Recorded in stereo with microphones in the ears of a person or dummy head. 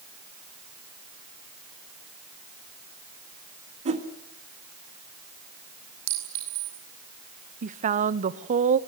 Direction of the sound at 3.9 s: 40° right (ahead or behind).